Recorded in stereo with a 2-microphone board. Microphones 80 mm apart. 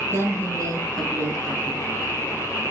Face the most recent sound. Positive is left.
turn(degrees=-60)  # may be behind; listen again after turning